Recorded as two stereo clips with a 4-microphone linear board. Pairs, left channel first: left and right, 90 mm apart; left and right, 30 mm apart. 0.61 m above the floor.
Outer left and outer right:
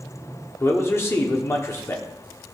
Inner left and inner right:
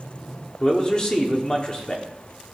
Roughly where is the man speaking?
Left.